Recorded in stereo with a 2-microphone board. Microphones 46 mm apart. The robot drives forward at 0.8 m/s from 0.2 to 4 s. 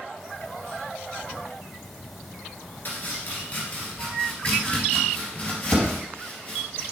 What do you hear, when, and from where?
2.9 s chopping: 40° left (ahead or behind), 2 m; by 6.9 s 30° left (ahead or behind), 2.5 m